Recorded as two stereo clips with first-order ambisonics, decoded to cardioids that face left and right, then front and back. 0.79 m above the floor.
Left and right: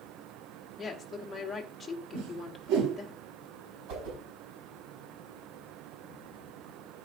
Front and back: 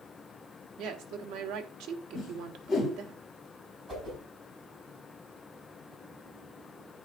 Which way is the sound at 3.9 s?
110° right.